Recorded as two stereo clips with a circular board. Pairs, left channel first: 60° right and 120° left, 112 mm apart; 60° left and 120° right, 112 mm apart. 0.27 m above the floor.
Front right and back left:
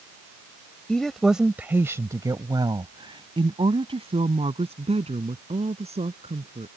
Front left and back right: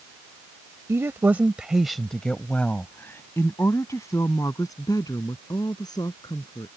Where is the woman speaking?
135° right; by 6.7 s 110° left.